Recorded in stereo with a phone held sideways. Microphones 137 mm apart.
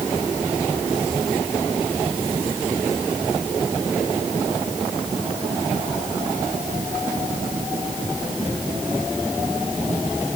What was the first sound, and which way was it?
Only background noise.